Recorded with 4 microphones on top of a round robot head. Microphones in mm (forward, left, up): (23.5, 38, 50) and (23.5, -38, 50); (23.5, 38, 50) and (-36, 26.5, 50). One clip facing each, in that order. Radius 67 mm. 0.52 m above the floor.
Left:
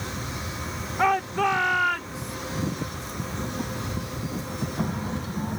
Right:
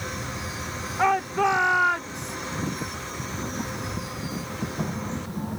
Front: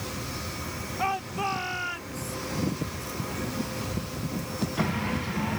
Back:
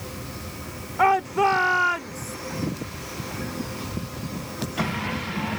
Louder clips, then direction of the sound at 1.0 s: Right 1 dB, back 10 dB; 175° right.